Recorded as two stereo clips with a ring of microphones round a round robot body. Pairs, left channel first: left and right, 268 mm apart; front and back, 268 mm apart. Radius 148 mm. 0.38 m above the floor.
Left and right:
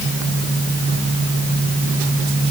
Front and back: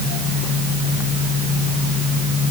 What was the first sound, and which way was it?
Only background noise.